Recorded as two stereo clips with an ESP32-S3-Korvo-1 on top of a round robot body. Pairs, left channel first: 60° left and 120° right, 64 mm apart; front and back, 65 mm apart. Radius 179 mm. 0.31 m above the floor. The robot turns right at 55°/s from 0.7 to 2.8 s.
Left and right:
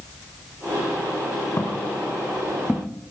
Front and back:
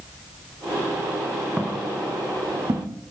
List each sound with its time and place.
1.6 s footsteps: 105° left, 3.5 m; by 3.0 s 160° left, 1.6 m